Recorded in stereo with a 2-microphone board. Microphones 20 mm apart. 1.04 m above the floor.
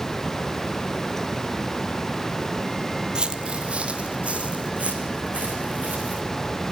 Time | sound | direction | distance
3.1 | footsteps | 40° right (ahead or behind) | 1.3 m